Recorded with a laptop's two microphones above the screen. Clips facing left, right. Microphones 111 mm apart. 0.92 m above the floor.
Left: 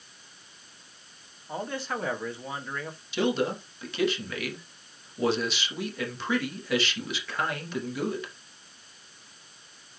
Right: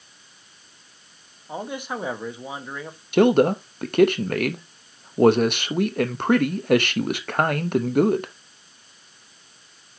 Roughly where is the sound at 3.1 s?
Right.